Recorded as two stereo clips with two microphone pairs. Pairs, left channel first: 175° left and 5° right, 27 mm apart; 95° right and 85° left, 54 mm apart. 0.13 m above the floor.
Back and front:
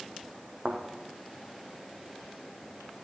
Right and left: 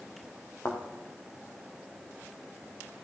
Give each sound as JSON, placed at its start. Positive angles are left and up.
{"t": 0.7, "sound": "a thud", "azimuth_deg": -50, "distance_m": 2.5}